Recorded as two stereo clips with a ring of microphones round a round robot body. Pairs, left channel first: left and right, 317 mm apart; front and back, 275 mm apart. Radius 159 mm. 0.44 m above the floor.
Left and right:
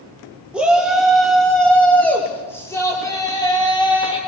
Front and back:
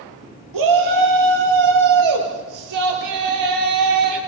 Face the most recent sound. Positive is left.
turn(degrees=165)